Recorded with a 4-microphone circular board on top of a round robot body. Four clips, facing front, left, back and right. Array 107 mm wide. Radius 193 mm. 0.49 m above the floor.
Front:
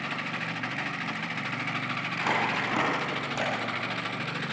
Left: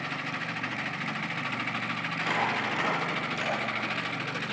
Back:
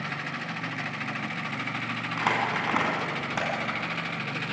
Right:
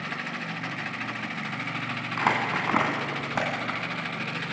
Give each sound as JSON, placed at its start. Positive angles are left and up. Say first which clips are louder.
{"t": 2.2, "sound": "crumpling", "louder": "right 4 dB, back 1 dB", "azimuth_deg": -105, "distance_m": 3.0}